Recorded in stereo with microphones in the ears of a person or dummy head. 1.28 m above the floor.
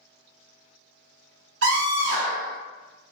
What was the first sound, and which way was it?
A scream, 65° right (ahead or behind).